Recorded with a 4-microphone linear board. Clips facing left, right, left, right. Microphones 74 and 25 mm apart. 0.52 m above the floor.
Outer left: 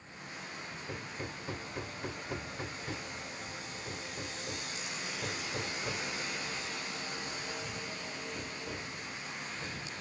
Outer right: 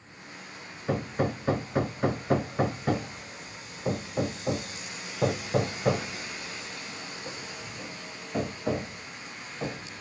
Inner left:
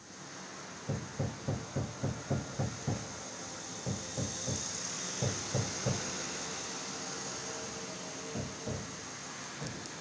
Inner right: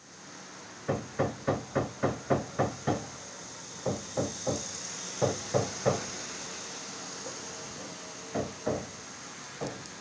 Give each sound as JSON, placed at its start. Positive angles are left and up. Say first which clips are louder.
{"t": 0.9, "sound": "hammering", "louder": "outer right 16 dB, inner right 9 dB", "side_deg": -80}